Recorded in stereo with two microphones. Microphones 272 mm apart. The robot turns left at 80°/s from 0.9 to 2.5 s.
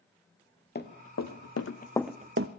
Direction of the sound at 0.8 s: 40° left (ahead or behind).